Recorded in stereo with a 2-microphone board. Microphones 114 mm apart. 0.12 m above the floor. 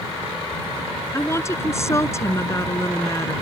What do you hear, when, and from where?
1.1 s a woman speaking: 25° left (ahead or behind)